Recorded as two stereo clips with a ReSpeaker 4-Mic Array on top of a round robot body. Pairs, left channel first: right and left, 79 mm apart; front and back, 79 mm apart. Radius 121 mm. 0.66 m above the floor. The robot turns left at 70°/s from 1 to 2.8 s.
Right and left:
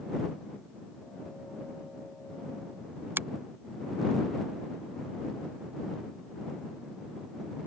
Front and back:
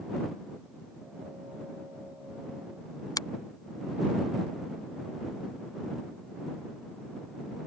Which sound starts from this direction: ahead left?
A finger snap, at 3.2 s.